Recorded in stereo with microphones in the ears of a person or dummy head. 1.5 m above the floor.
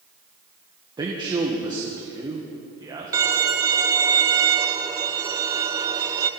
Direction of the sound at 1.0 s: 20° right (ahead or behind).